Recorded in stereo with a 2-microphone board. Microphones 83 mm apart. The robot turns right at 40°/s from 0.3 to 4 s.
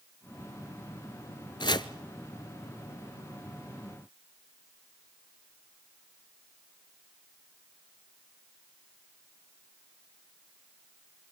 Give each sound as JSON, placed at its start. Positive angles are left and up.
{"t": 1.6, "sound": "chopping", "side_deg": 65, "distance_m": 0.8}